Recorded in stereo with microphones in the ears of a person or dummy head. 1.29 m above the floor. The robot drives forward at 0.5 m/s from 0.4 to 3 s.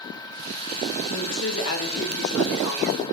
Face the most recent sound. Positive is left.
turn(degrees=70)  # may be behind; listen again after turning